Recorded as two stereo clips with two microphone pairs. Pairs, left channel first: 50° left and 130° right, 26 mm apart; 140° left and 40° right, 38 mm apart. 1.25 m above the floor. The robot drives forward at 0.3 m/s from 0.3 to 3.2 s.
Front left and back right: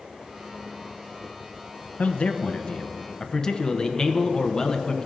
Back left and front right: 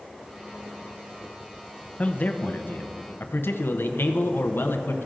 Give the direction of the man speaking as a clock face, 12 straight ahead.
9 o'clock.